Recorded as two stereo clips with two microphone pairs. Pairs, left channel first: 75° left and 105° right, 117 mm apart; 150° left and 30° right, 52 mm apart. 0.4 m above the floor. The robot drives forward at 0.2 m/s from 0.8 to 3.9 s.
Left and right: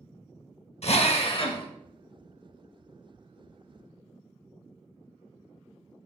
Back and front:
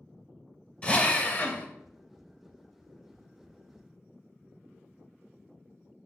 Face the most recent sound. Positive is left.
turn(degrees=135)